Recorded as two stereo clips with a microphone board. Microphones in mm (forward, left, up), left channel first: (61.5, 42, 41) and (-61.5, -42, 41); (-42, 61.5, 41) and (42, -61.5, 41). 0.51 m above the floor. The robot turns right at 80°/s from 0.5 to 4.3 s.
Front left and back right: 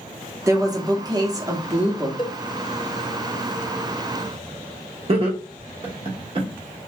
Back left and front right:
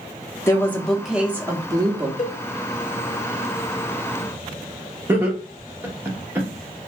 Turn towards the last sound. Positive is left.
turn(degrees=-120)